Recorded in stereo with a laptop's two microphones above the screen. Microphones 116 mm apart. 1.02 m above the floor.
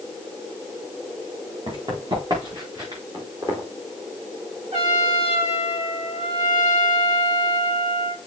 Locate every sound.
1.7 s running footsteps: 45° right (ahead or behind), 4.5 m; by 3.0 s 35° right (ahead or behind), 5.5 m
3.1 s footsteps: 35° right (ahead or behind), 3.5 m
4.7 s a trumpet: 70° right (ahead or behind), 5.5 m